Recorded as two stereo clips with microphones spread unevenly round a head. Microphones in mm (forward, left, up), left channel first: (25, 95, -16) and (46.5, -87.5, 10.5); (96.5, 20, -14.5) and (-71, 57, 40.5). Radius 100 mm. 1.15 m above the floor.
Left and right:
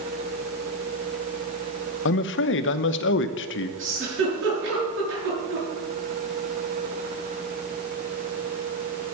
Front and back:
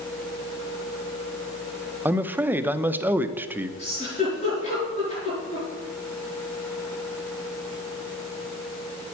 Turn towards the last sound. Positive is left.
turn(degrees=-75)